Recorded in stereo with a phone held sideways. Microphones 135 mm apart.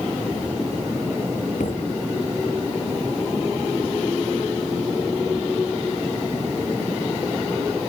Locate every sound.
1.6 s a thud: 85° left